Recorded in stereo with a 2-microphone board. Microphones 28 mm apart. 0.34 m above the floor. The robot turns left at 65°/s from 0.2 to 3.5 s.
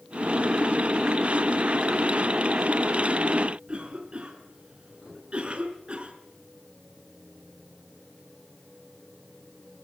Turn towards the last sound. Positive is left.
turn(degrees=-40)  # may be behind; listen again after turning